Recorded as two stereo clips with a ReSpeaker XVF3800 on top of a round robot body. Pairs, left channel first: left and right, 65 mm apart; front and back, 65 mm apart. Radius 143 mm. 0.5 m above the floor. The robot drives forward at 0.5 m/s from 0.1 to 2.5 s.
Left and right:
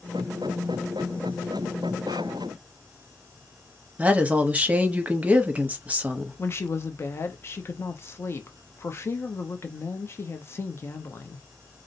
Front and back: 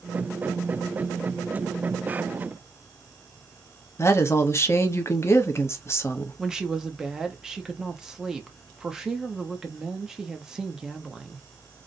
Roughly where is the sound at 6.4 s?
Left.